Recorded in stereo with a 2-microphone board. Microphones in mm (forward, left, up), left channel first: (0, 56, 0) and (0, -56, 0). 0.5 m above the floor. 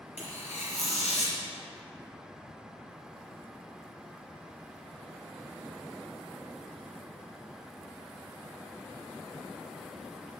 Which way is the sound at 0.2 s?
90° left.